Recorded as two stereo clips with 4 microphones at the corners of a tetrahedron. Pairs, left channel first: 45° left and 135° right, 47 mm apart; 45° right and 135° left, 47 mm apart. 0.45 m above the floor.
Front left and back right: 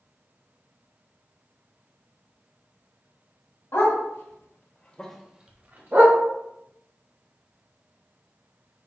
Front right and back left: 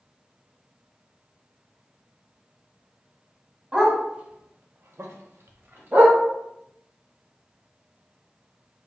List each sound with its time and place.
3.7 s a dog barking: 65° left, 1.3 m; by 6.2 s 175° right, 1.1 m